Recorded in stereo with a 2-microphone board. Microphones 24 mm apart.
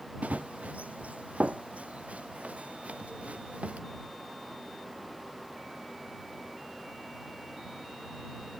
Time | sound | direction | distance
0.2 | running footsteps | 70° right (ahead or behind) | ?